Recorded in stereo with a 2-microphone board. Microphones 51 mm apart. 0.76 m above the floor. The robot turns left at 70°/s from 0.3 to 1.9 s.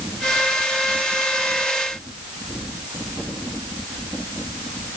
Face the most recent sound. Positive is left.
No sound to turn to.